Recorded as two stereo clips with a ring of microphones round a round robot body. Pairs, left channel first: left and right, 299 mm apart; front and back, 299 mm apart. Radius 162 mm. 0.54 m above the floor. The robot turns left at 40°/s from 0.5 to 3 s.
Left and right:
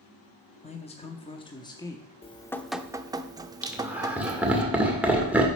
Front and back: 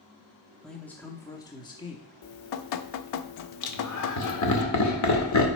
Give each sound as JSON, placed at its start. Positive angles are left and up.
{"t": 0.6, "sound": "a man speaking", "azimuth_deg": 85, "distance_m": 0.7}
{"t": 2.2, "sound": "dripping", "azimuth_deg": 20, "distance_m": 0.6}
{"t": 3.6, "sound": "laughter", "azimuth_deg": -5, "distance_m": 2.0}